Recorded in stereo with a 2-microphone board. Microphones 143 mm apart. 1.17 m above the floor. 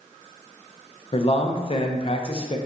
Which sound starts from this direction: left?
A man speaking, at 1.1 s.